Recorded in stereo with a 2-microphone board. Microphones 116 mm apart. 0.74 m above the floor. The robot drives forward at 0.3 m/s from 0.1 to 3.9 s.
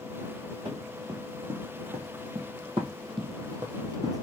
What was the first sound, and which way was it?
Running footsteps, 45° right (ahead or behind).